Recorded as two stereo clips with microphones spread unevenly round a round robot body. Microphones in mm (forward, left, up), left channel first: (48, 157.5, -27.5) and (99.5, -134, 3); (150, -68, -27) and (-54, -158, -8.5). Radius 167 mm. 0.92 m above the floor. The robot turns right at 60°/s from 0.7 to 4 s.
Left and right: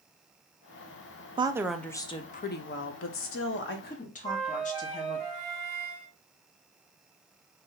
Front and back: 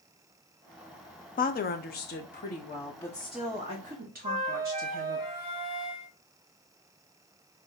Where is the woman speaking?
5° right, 0.6 m; by 5.2 s 150° left, 0.6 m.